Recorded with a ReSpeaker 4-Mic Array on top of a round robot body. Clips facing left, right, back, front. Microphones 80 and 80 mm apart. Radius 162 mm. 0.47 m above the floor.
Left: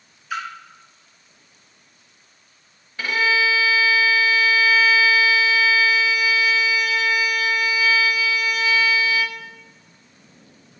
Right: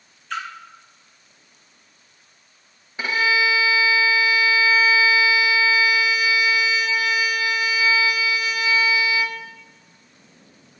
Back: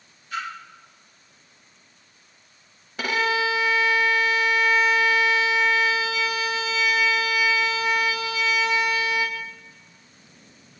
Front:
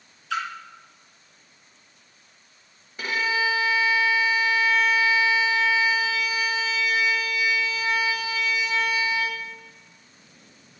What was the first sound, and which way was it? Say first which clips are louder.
A splash: left 1 dB, front 3 dB; 10° left.